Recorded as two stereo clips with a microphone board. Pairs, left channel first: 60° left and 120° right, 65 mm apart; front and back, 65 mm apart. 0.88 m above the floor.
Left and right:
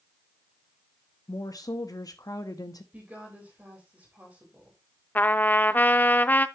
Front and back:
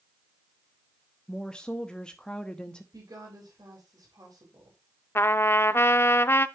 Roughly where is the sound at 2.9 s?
Behind.